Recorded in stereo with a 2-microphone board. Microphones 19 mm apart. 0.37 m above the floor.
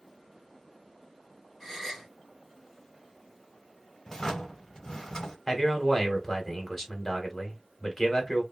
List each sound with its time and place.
1.6 s a gasp: 15° left (ahead or behind), 1.6 m
4.1 s a drawer: 40° left (ahead or behind), 0.8 m
5.5 s a man speaking: 30° left (ahead or behind), 1.1 m